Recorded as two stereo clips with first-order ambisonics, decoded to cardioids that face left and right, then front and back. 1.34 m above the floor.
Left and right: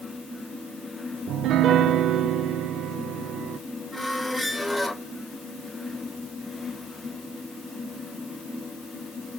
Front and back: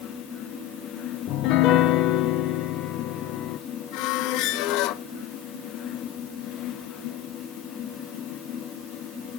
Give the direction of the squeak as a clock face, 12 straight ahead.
12 o'clock.